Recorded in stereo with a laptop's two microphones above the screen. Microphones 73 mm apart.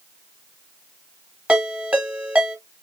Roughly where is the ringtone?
Centre.